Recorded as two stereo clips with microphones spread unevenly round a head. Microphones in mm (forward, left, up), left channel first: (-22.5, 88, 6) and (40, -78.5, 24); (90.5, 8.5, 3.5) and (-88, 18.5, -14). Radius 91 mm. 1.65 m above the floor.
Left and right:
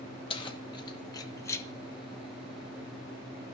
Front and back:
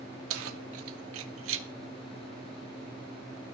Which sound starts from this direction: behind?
Keys jangling, at 0.3 s.